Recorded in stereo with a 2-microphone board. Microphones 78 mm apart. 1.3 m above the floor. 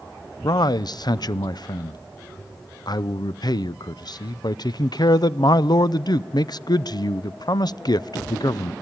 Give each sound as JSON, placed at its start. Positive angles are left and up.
{"t": 0.4, "sound": "a man speaking", "side_deg": 55, "distance_m": 0.6}